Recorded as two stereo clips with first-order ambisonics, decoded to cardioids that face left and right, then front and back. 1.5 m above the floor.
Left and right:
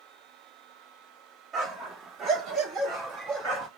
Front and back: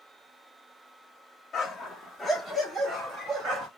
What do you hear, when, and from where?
1.5 s a dog barking: 60° right, 1.3 m; by 3.7 s 130° right, 1.7 m